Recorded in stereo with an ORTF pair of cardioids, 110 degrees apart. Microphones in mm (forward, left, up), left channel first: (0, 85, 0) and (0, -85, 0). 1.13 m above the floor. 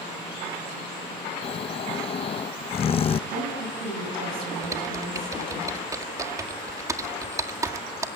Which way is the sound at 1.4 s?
35° left.